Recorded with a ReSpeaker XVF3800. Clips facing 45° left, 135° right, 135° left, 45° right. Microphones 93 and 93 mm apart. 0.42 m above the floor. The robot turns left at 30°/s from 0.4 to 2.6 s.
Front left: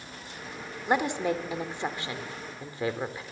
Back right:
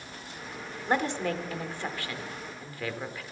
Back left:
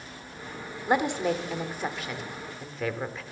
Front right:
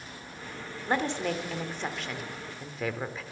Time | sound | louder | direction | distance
0.9 | a woman speaking | front left 2 dB, back left 4 dB | 95° left | 0.8 m